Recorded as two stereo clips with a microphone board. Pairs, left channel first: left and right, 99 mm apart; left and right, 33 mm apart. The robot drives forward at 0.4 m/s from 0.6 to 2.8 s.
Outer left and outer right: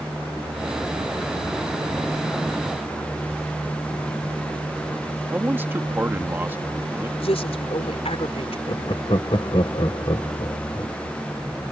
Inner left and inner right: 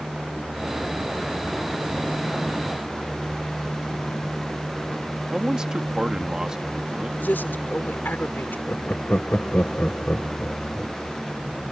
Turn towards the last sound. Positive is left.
turn(degrees=55)  # may be behind; listen again after turning